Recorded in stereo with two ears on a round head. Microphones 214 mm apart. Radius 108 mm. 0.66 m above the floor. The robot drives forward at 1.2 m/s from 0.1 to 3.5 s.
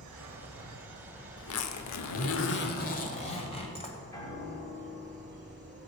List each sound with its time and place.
0.0 s an insect: 80° right, 1.1 m; by 5.9 s 15° right (ahead or behind), 4 m
1.4 s a zipper: 55° left (ahead or behind), 1.2 m; by 4.0 s 25° left (ahead or behind), 2 m
4.1 s a piano: 15° left (ahead or behind), 3.5 m